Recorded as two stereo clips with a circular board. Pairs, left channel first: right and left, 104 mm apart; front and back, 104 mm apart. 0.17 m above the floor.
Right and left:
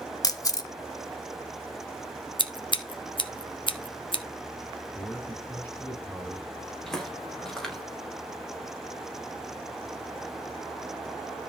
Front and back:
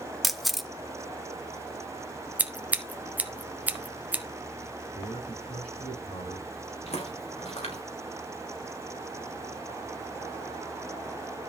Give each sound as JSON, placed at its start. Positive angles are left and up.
{"t": 0.2, "sound": "a camera shutter", "azimuth_deg": -90, "distance_m": 1.2}
{"t": 2.4, "sound": "scissors", "azimuth_deg": -110, "distance_m": 1.2}
{"t": 5.0, "sound": "a man speaking", "azimuth_deg": -15, "distance_m": 8.0}
{"t": 6.9, "sound": "footsteps", "azimuth_deg": -5, "distance_m": 5.0}